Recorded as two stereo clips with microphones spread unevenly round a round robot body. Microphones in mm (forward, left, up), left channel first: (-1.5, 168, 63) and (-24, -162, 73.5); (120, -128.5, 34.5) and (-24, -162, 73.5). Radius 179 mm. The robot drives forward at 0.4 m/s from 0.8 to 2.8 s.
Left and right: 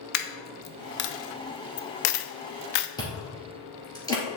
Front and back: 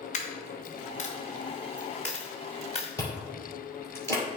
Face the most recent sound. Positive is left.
turn(degrees=165)